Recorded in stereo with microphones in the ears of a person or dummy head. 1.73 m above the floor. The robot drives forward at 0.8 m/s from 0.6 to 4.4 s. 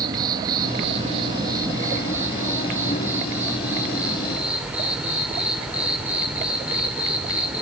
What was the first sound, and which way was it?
An insect, 25° right (ahead or behind).